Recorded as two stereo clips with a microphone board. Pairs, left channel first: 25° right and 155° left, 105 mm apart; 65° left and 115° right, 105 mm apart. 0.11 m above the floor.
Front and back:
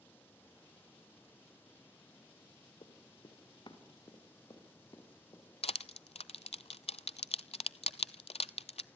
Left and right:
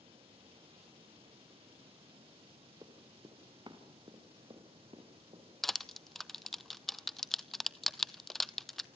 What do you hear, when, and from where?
0.0 s running water: 95° right, 5 m
2.8 s running footsteps: 60° right, 3.5 m; by 5.5 s 80° right, 5.5 m
5.6 s crushing: 20° right, 0.5 m